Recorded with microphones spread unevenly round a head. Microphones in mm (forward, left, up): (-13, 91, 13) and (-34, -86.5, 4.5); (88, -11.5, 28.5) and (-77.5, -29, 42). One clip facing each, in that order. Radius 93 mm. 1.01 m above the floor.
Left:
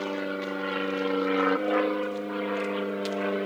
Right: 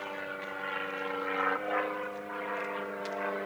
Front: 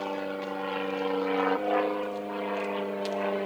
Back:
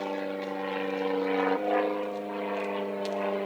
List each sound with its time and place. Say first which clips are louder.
0.0 s an aircraft: left 10 dB, even; 100° left; by 3.5 s 90° left